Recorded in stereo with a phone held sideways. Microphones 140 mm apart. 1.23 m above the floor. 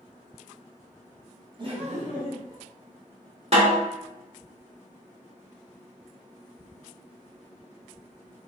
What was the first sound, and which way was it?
Laughter, 35° right (ahead or behind).